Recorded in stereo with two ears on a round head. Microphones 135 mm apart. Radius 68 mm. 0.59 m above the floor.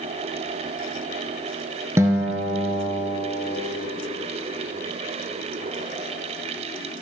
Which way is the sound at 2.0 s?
20° right (ahead or behind).